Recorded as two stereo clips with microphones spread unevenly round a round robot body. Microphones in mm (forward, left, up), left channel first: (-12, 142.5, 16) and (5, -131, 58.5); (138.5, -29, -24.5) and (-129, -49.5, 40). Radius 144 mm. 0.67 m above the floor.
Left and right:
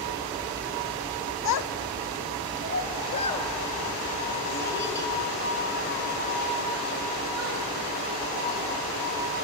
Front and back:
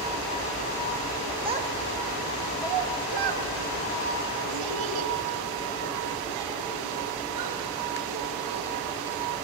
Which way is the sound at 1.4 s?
105° left.